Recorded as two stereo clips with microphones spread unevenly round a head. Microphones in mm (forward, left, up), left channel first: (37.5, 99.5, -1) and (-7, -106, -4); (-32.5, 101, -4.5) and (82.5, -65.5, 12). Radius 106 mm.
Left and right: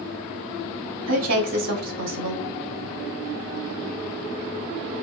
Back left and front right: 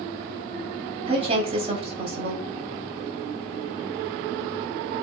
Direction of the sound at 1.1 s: 120° right.